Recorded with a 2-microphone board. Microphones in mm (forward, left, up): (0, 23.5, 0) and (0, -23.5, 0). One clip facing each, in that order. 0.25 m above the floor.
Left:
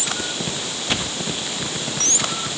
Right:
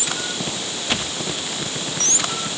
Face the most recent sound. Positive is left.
No sound to turn to.